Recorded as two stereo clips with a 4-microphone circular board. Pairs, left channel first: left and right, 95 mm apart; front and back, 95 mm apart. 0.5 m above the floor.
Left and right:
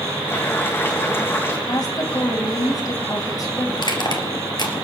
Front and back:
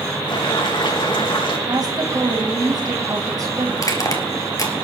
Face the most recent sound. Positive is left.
turn(degrees=50)